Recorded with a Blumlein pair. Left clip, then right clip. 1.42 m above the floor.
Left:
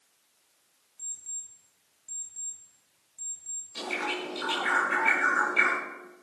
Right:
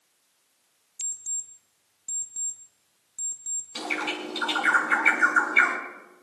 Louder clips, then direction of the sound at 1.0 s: Right 6 dB; 30° right.